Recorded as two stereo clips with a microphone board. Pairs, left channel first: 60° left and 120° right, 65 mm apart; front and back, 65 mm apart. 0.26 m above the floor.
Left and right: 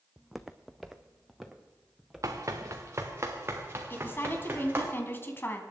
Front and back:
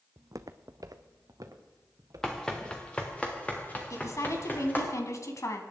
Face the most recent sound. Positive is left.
turn(degrees=15)